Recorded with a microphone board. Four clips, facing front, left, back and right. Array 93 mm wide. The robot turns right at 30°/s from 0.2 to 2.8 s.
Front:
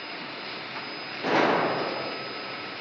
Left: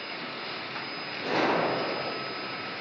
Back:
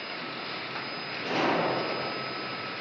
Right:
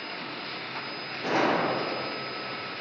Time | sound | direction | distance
1.2 | a gunshot | 15° right | 0.6 m